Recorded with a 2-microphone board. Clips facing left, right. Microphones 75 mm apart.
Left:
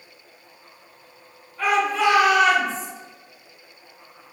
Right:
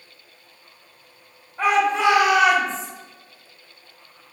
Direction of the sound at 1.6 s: 30° right (ahead or behind).